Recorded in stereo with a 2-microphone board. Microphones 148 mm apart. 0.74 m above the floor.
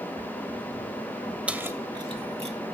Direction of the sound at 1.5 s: 10° right (ahead or behind).